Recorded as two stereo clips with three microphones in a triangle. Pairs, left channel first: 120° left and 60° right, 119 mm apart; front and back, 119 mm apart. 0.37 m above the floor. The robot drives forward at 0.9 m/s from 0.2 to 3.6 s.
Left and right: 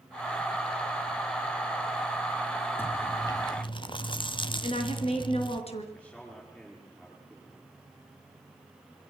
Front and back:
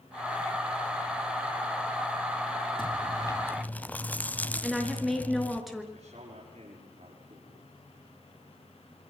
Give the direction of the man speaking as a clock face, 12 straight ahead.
5 o'clock.